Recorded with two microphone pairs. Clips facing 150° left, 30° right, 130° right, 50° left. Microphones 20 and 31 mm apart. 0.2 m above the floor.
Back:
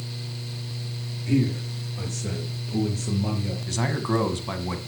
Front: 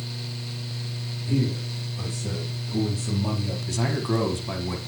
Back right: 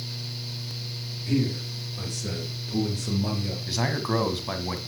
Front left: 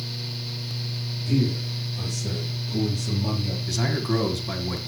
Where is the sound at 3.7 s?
160° right, 1.7 m.